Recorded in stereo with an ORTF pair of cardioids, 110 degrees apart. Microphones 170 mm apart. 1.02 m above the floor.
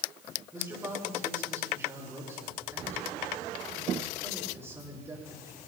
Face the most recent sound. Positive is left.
turn(degrees=-15)